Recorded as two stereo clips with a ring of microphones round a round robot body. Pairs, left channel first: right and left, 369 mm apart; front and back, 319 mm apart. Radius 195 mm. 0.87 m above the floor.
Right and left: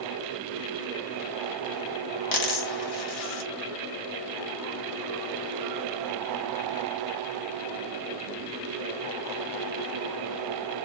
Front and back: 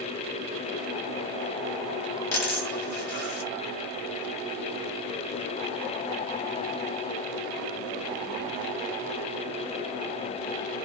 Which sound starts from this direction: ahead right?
A dropped coin, at 2.3 s.